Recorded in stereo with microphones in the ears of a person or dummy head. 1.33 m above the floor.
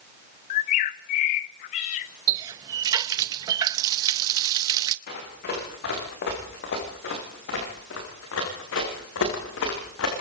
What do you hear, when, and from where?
0.5 s a bird: 35° left (ahead or behind), 0.7 m
2.3 s a running tap: 25° right (ahead or behind), 0.6 m
5.1 s running footsteps: 55° left (ahead or behind), 8.5 m; by 10.2 s 80° left, 7.5 m